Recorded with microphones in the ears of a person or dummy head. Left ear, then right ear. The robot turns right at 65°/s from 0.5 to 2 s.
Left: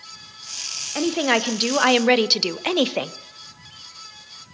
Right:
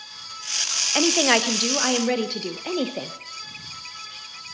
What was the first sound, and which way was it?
A woman speaking, 25° right.